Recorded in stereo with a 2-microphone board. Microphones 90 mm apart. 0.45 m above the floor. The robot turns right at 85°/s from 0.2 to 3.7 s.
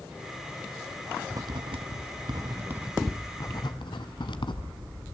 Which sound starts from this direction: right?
Writing, at 1.3 s.